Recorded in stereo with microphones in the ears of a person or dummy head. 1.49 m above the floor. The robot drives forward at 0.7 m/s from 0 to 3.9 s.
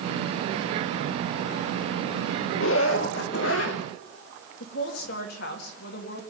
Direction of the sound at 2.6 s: 80° left.